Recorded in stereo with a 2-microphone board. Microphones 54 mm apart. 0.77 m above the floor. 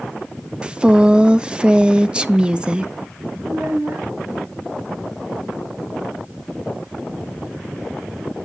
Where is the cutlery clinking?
No cutlery clinking in this recording.